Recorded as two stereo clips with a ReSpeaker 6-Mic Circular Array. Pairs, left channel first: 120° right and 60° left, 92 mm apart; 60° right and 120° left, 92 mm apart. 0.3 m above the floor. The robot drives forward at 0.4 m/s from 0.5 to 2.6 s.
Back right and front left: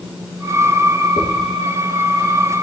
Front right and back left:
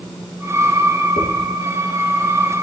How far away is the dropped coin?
About 9.5 m.